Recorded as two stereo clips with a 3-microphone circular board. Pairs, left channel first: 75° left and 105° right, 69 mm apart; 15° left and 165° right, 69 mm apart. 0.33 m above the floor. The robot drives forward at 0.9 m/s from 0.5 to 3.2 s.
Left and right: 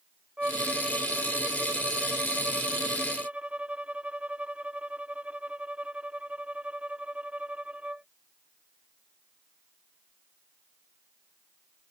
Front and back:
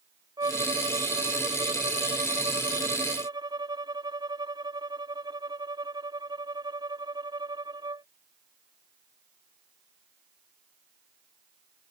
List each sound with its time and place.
0.4 s a violin: straight behind